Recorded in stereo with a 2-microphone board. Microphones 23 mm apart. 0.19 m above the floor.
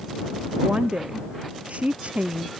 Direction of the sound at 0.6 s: 55° right (ahead or behind).